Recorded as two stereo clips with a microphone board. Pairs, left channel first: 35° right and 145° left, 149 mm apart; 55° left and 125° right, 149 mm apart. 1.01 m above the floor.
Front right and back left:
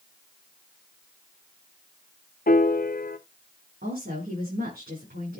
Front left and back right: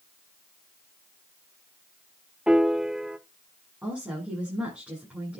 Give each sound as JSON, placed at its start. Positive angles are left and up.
{"t": 2.5, "sound": "a piano", "azimuth_deg": -40, "distance_m": 0.7}
{"t": 3.8, "sound": "a woman speaking", "azimuth_deg": 155, "distance_m": 8.0}